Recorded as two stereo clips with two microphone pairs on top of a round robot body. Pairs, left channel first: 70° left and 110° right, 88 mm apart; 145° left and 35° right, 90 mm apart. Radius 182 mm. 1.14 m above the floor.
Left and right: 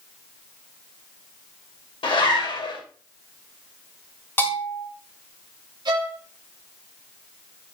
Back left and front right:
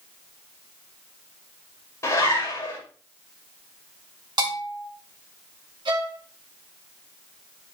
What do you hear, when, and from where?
2.0 s a zipper: 90° left, 6.5 m
4.4 s a bell: 5° left, 4 m
5.8 s a violin: 70° right, 1.8 m